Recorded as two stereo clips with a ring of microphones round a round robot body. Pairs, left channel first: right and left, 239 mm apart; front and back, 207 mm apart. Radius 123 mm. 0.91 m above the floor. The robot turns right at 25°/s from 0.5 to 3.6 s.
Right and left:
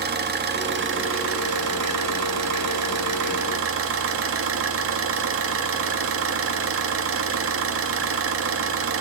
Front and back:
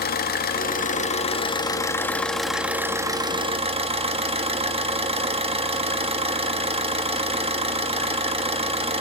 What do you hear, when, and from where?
0.0 s an engine running: 40° left, 1.5 m; by 9.0 s 120° left, 1.5 m